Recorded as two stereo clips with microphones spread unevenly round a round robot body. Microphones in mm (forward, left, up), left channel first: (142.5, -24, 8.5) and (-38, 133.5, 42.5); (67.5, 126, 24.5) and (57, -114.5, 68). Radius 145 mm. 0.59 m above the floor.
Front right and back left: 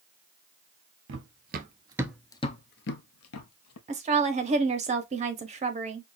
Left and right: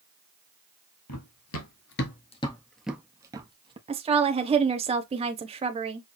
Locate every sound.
1.1 s running footsteps: 125° left, 0.9 m; by 3.8 s 30° right, 1.2 m
3.9 s a woman speaking: 160° right, 0.7 m